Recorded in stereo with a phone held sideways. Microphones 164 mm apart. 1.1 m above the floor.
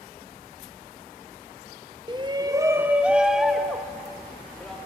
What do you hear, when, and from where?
2.1 s a shout: 25° right (ahead or behind), 0.7 m; by 4.8 s 5° left (ahead or behind), 3 m